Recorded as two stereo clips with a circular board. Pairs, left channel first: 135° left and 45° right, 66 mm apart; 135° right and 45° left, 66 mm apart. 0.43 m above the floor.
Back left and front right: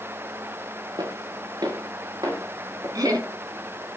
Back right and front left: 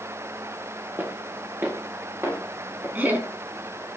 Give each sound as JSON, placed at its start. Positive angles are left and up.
{"t": 1.0, "sound": "footsteps", "azimuth_deg": -15, "distance_m": 6.0}
{"t": 3.0, "sound": "laughter", "azimuth_deg": -20, "distance_m": 5.0}